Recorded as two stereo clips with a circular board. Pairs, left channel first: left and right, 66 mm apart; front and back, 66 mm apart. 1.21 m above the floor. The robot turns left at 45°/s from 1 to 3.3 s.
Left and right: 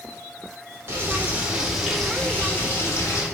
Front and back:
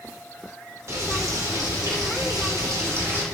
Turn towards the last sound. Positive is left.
turn(degrees=120)